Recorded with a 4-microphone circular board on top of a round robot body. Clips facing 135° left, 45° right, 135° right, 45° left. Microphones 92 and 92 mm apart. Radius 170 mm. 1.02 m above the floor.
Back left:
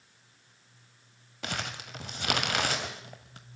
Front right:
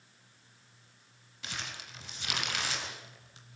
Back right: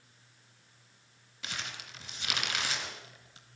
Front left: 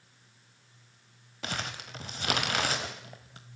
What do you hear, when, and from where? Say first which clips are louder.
1.4 s crumpling: back left 6 dB, front left 6 dB; 95° left, 1.1 m